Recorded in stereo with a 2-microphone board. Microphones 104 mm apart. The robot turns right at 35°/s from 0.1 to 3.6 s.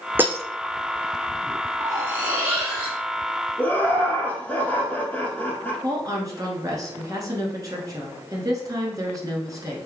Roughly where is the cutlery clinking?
Ahead right.